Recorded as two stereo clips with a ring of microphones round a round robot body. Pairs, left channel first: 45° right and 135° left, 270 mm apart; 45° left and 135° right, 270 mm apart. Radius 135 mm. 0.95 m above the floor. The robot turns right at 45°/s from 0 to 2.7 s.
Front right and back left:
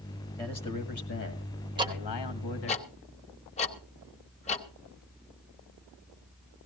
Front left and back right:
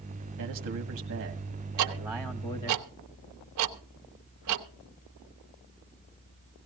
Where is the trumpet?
No trumpet in this recording.